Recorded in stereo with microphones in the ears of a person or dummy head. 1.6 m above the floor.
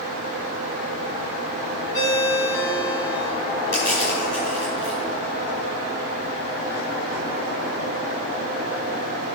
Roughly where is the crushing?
Left.